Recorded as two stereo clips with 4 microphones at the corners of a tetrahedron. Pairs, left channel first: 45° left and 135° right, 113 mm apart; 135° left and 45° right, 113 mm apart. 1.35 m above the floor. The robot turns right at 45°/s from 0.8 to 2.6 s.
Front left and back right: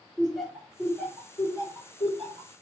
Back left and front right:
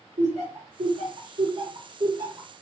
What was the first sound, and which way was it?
Laughter, 45° right.